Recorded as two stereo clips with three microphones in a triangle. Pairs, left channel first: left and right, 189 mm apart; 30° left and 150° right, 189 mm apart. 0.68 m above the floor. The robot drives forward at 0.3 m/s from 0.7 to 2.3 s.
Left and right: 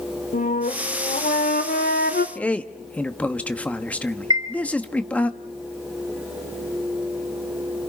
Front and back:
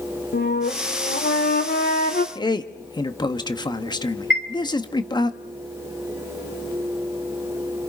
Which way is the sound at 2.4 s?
20° left.